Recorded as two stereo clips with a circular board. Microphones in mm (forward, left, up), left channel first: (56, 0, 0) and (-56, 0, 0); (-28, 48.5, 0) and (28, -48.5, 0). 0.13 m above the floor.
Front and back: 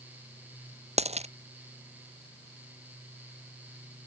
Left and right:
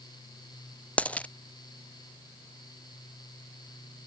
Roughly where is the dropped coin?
Behind.